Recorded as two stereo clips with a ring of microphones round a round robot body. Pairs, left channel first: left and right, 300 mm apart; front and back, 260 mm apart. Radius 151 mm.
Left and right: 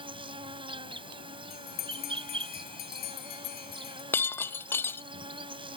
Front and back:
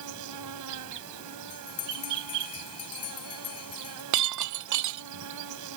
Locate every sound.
0.0 s an insect: 165° right
1.5 s a bell: 30° left
4.1 s breaking glass: 175° left